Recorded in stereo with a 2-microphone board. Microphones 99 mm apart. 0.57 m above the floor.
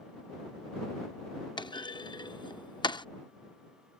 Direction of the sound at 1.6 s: 50° left (ahead or behind).